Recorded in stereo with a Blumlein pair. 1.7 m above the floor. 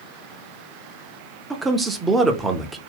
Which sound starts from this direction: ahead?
A man speaking, at 1.5 s.